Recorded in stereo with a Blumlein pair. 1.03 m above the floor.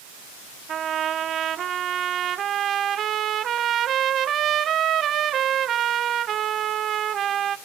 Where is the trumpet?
25° right, 0.5 m.